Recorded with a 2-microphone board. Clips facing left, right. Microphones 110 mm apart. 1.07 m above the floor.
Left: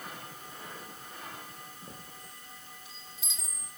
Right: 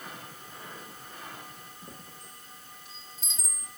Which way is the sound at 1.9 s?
10° left (ahead or behind).